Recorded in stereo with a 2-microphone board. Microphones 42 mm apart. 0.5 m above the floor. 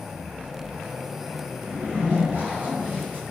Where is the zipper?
55° right (ahead or behind), 0.6 m.